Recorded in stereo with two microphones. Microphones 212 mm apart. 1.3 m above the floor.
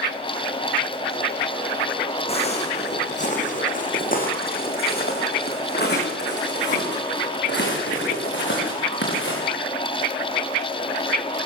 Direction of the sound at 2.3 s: 30° left (ahead or behind).